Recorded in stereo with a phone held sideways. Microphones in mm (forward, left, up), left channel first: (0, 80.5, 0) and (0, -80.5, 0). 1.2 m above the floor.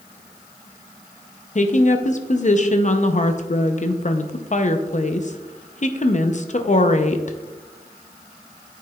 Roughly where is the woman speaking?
Left.